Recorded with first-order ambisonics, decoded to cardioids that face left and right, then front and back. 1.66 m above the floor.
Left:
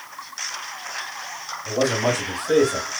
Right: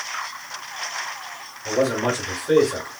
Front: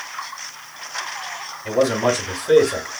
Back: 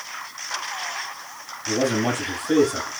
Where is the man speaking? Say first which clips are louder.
Even, front 4 dB; 20° right, 3.5 m.